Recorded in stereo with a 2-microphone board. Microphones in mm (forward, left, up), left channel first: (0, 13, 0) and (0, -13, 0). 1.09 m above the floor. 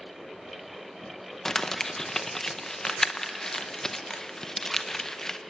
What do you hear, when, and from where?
1.4 s crumpling: 25° left (ahead or behind), 0.9 m